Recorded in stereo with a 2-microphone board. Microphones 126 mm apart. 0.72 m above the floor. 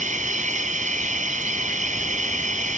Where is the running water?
80° right.